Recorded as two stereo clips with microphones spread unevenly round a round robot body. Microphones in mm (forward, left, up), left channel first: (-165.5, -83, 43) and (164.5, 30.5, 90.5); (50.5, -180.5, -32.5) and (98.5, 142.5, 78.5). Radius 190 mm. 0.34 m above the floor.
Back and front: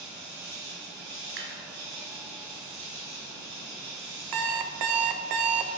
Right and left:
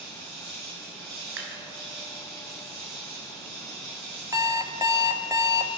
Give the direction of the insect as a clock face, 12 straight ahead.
10 o'clock.